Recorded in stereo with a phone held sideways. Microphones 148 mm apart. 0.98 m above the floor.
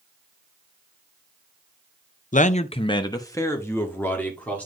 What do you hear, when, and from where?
2.3 s a man speaking: 60° left (ahead or behind), 0.6 m; by 4.7 s 10° left (ahead or behind), 2.5 m